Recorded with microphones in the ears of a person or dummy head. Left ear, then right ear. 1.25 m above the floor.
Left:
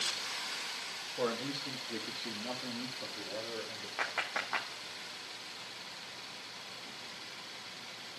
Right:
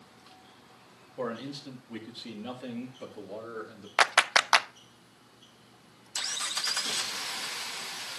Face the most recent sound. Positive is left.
turn(degrees=-55)  # may be behind; listen again after turning